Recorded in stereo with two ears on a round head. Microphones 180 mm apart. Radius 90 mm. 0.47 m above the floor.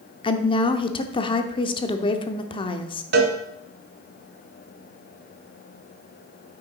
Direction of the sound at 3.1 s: 50° right (ahead or behind).